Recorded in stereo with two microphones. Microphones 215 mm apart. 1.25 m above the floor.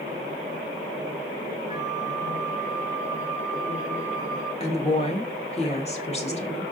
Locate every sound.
1.7 s a flute: 35° left (ahead or behind), 2.5 m
4.6 s a woman speaking: 30° left (ahead or behind), 1.5 m